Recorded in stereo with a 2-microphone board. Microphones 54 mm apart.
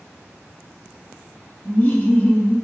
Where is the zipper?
No zipper in this recording.